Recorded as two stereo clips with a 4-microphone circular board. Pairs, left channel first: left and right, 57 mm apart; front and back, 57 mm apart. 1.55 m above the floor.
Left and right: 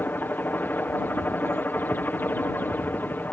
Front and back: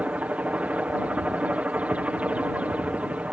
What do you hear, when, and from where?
0.0 s a helicopter: 125° left